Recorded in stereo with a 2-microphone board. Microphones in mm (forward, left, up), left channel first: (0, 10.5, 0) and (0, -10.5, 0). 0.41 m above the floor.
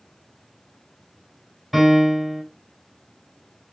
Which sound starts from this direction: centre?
A piano, at 1.7 s.